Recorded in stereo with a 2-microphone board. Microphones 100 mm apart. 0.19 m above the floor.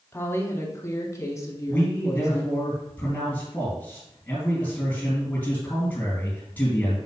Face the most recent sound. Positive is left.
turn(degrees=20)  # may be behind; listen again after turning